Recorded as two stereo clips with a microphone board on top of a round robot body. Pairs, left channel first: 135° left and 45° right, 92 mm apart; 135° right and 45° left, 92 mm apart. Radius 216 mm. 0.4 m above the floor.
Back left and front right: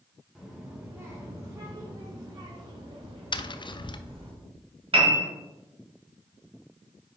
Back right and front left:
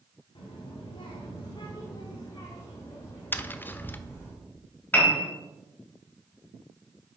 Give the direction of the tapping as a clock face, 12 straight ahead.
7 o'clock.